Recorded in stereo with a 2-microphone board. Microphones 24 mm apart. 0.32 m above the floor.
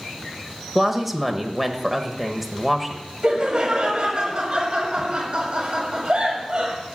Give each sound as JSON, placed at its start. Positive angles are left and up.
{"t": 0.8, "sound": "a woman speaking", "side_deg": -10, "distance_m": 1.0}
{"t": 3.2, "sound": "laughter", "side_deg": -45, "distance_m": 1.6}